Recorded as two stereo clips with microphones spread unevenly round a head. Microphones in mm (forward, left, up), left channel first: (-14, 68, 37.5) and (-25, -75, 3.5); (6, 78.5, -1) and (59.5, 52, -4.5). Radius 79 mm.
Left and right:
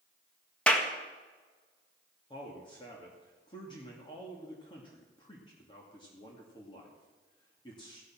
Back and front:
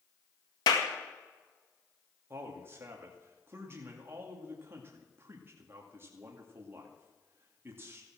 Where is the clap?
170° left, 1.8 m.